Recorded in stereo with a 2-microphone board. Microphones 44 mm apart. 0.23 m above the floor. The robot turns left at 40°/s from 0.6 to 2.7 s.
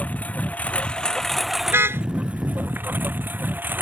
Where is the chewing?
I don't hear chewing.